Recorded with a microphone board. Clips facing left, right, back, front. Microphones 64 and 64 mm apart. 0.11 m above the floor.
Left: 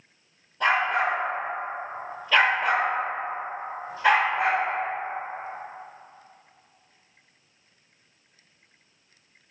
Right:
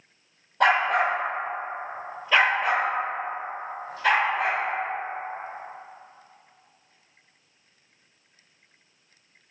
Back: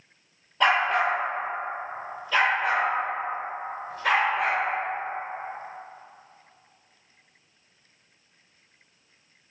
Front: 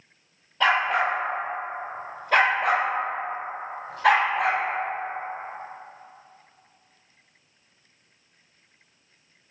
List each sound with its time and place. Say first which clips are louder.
0.6 s a dog barking: right 2 dB, even; 100° right, 0.8 m; by 4.6 s 25° left, 1.6 m